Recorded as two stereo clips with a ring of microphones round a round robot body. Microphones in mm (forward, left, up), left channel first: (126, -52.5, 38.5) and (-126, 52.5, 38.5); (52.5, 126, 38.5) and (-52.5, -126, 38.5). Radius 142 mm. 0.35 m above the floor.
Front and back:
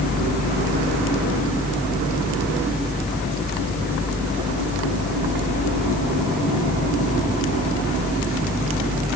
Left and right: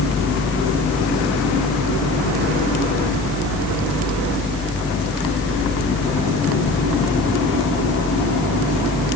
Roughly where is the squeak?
I don't hear a squeak.